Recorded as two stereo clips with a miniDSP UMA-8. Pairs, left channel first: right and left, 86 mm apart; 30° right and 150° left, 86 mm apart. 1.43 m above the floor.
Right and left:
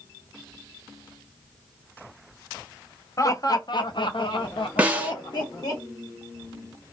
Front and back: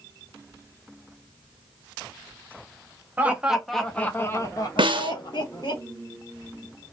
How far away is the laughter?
About 0.8 m.